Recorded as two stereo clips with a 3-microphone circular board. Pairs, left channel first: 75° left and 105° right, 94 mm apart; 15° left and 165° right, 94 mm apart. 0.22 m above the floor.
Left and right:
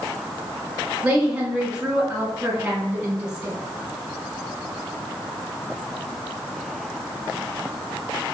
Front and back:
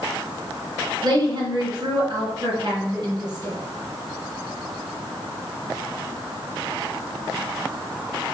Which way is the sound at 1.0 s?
Straight behind.